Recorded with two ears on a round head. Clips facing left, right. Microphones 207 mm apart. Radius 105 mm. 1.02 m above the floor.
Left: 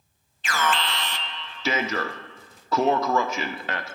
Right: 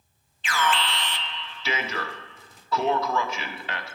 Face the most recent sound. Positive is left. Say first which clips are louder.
# even
turn(degrees=40)  # may be behind; listen again after turning